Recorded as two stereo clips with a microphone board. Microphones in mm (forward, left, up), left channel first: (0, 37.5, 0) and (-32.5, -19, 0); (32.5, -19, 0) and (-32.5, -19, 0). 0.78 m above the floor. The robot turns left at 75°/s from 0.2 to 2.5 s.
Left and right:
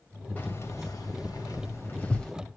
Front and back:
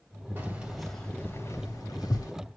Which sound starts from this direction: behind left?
Keys jangling, at 0.4 s.